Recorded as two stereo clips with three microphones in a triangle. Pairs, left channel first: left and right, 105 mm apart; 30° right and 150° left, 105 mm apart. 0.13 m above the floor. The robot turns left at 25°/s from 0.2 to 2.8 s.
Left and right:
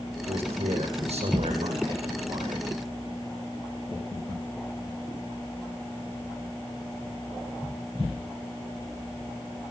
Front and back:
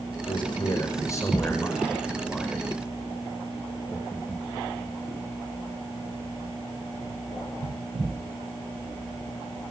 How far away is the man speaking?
About 8 m.